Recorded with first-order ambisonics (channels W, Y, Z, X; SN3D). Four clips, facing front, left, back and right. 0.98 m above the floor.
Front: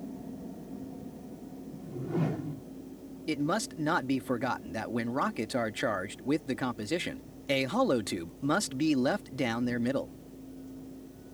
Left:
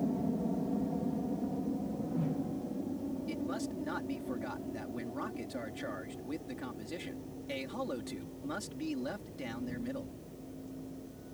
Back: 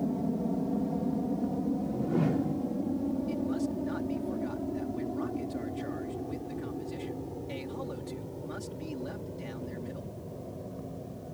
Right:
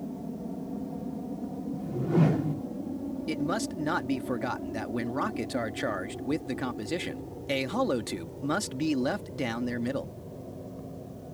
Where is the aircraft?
155° left; by 11.3 s 140° right.